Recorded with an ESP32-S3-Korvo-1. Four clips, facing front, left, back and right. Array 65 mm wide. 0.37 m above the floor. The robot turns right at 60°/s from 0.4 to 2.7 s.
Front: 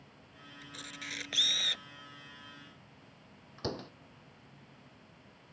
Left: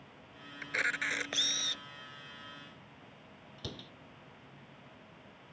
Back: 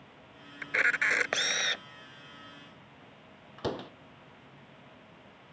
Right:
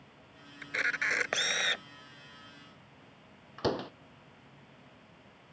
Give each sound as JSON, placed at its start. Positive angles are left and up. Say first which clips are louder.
{"t": 0.6, "sound": "a camera shutter", "louder": "right 2 dB, back 21 dB", "azimuth_deg": 170}
{"t": 3.6, "sound": "a door slam", "louder": "right 16 dB, back 4 dB", "azimuth_deg": -110}